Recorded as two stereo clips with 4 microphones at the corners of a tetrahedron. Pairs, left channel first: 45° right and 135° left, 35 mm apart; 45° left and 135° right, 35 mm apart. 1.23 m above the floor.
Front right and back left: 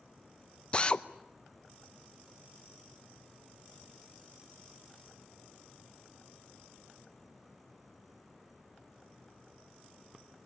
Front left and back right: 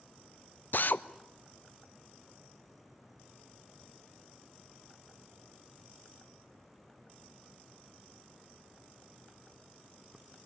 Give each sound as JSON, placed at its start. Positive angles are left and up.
{"t": 0.7, "sound": "a drill", "azimuth_deg": 15, "distance_m": 0.8}